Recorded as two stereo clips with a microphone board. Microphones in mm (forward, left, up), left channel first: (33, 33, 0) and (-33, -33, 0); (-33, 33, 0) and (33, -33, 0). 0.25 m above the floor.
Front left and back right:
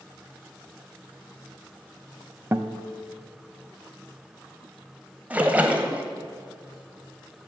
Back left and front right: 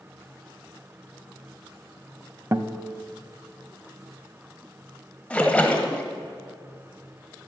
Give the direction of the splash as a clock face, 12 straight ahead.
6 o'clock.